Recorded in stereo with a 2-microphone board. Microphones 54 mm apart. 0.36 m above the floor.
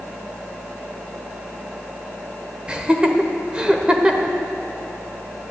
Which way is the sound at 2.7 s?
20° right (ahead or behind).